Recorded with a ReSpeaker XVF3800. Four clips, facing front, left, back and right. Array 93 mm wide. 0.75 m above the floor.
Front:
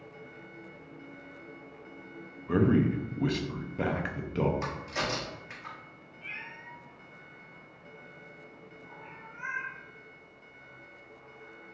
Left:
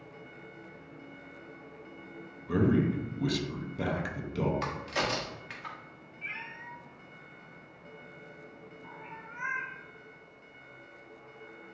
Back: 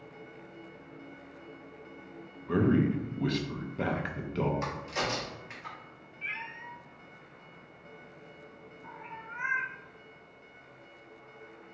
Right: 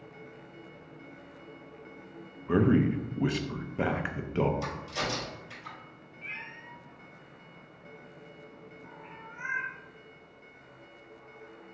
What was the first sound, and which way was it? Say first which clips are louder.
A man speaking: right 2 dB, front 1 dB; 80° right.